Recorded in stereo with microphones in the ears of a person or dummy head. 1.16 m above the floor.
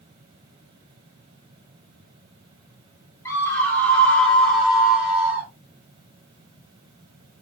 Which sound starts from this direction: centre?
A scream, at 3.2 s.